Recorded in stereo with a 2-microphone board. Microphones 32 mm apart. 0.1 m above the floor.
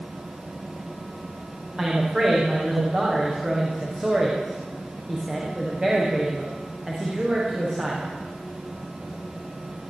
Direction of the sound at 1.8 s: 30° right (ahead or behind).